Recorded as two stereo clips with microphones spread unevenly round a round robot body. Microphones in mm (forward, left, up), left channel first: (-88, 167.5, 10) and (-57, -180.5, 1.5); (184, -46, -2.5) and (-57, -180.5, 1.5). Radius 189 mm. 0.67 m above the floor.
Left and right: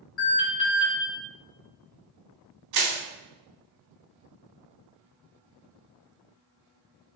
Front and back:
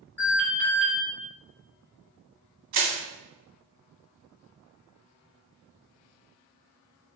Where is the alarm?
110° left, 1.2 m.